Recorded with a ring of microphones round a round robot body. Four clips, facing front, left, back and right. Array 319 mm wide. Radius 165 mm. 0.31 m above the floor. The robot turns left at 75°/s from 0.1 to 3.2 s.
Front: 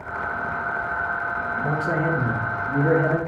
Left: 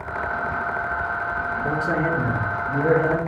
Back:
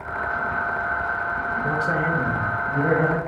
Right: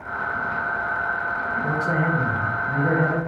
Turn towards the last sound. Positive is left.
turn(degrees=-165)